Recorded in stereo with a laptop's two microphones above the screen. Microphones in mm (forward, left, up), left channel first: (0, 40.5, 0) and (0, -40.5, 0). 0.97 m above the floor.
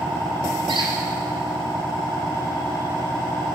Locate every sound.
0.7 s a squeak: 70° right (ahead or behind), 3 m